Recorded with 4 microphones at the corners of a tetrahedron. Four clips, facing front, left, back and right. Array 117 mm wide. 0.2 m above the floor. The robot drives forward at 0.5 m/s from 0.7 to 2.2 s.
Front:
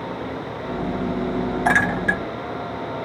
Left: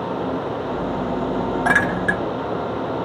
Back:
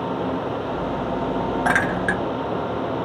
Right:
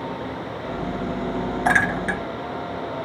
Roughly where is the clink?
Behind left.